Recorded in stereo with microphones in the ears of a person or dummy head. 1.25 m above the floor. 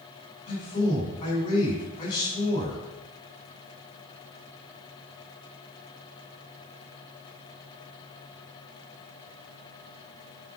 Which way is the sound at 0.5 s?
40° left (ahead or behind).